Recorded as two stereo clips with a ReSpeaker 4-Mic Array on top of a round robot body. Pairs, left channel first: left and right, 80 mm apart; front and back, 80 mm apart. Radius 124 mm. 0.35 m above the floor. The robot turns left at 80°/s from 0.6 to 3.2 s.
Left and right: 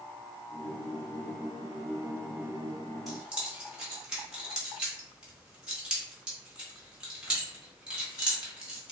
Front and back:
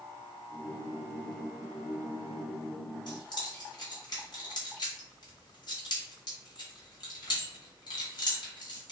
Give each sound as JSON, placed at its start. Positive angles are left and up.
{"t": 3.1, "sound": "keys jangling", "azimuth_deg": 0, "distance_m": 1.3}